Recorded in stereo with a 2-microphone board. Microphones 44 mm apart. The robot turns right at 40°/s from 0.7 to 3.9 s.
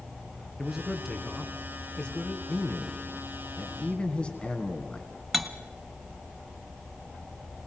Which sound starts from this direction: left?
A man speaking, at 2.5 s.